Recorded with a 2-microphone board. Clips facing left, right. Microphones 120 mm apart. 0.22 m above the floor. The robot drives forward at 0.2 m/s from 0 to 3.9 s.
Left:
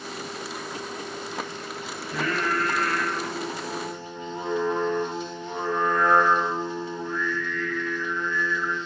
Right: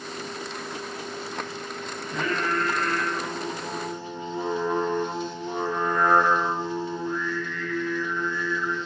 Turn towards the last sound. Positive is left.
turn(degrees=-5)  # may be behind; listen again after turning